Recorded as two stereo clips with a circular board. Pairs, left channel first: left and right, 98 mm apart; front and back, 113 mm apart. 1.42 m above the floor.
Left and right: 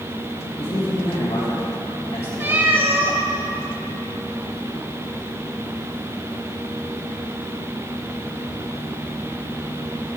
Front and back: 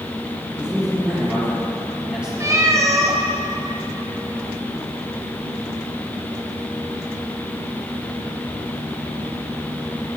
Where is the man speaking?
100° left, 2 m.